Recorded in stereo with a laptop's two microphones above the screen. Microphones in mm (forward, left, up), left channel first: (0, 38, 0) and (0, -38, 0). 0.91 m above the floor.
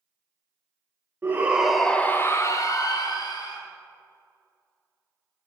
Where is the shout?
30° right (ahead or behind), 0.7 m; by 3.6 s 65° left (ahead or behind), 1.4 m.